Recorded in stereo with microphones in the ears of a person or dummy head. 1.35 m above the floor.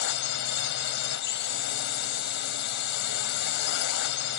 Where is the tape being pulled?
No tape being pulled in this recording.